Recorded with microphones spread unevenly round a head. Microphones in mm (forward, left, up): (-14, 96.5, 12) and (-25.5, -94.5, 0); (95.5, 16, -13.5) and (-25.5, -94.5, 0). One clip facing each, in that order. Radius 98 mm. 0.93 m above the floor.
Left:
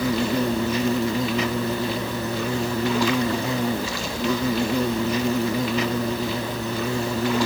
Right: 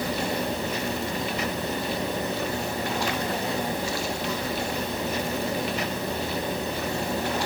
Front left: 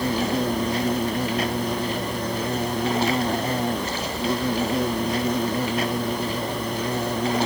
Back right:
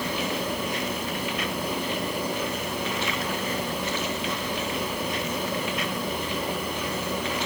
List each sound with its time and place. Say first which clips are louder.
0.0 s an insect: left 6 dB, front left 6 dB; 105° left